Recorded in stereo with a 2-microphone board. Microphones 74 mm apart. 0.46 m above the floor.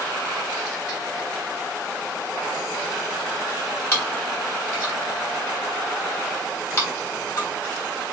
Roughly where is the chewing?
Left.